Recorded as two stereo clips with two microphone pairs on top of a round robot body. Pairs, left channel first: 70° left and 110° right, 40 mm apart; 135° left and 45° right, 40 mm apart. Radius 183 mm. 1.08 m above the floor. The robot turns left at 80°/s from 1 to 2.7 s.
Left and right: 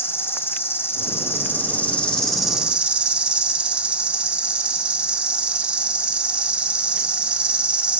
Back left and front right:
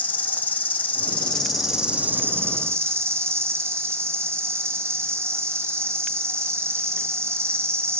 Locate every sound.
0.0 s an insect: 90° left, 2.0 m; by 8.0 s 45° right, 2.0 m